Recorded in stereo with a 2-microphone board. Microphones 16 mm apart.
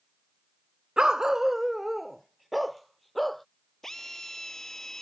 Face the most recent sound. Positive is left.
turn(degrees=20)  # may be behind; listen again after turning